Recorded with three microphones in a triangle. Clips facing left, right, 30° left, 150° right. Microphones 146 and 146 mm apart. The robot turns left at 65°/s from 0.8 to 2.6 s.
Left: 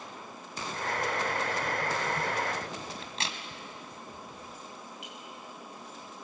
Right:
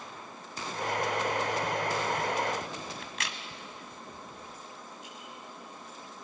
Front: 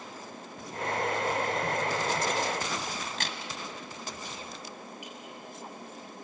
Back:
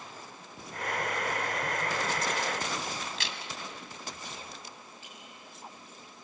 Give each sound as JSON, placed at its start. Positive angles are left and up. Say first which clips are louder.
{"t": 3.0, "sound": "a crack", "louder": "left 1 dB, front 2 dB", "azimuth_deg": 40, "distance_m": 1.7}
{"t": 5.0, "sound": "a clink", "louder": "left 1 dB, front 7 dB", "azimuth_deg": 105, "distance_m": 6.0}